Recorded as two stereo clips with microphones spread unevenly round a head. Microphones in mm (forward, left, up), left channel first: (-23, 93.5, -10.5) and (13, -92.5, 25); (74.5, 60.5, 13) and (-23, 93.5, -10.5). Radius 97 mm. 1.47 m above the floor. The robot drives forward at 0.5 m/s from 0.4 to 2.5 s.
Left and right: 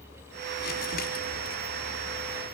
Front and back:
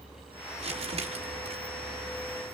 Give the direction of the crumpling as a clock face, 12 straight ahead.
7 o'clock.